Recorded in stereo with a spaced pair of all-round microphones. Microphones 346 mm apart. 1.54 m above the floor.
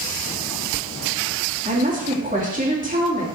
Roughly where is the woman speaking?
Right.